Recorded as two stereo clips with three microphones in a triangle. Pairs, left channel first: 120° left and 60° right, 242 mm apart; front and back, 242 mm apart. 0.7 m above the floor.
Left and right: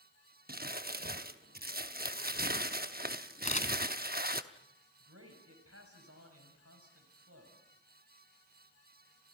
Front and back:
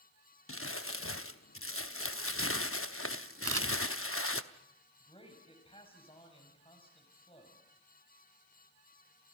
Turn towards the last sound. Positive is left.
turn(degrees=-65)